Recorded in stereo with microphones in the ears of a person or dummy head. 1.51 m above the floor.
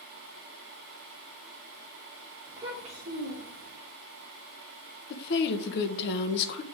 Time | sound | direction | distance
2.5 | a child speaking | 5° right (ahead or behind) | 0.7 m
5.1 | a woman speaking | 50° left (ahead or behind) | 0.8 m